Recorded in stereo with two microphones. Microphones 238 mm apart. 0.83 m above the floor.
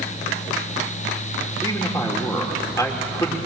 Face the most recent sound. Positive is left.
turn(degrees=15)  # may be behind; listen again after turning